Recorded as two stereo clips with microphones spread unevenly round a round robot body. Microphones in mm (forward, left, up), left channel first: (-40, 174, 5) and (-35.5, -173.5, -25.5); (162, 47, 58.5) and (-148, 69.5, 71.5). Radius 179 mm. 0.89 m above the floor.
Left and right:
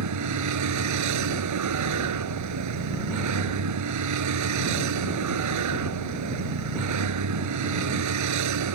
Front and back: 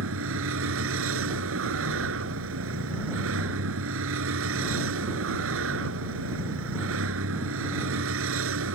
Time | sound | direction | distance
0.0 | a vehicle | 130° right | ?